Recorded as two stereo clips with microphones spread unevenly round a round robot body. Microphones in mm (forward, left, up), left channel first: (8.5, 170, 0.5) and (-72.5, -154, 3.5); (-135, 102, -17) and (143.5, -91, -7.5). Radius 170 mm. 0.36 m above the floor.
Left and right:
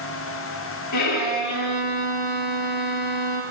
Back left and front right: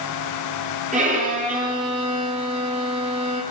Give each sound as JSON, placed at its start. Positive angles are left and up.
{"t": 0.9, "sound": "a violin", "azimuth_deg": 35, "distance_m": 9.5}